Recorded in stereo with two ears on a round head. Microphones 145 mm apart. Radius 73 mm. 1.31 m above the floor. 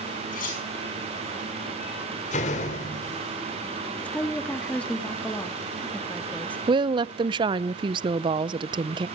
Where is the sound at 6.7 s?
30° right (ahead or behind), 0.5 m.